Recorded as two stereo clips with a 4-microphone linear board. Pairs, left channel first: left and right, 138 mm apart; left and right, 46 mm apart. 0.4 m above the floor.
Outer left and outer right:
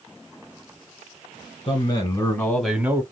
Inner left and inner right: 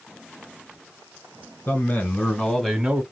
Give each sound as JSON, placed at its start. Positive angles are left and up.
{"t": 1.7, "sound": "a man speaking", "side_deg": 45, "distance_m": 1.8}